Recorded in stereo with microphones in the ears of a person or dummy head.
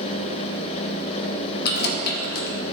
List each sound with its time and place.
1.6 s keys jangling: 60° left (ahead or behind), 1.1 m